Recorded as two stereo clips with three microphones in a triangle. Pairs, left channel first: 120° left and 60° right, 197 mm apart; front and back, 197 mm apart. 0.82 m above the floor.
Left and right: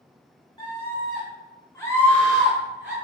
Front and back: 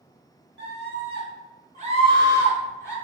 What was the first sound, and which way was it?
A scream, 175° right.